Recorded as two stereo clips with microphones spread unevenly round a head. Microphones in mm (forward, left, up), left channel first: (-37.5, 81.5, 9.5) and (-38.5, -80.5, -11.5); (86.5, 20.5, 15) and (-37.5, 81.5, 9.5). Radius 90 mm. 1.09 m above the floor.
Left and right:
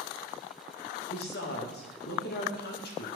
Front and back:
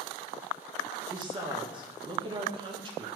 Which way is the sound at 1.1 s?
105° left.